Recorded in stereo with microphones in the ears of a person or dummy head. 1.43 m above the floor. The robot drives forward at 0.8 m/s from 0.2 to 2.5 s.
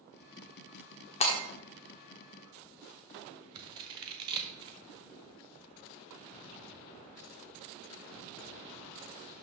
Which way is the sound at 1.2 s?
35° left (ahead or behind).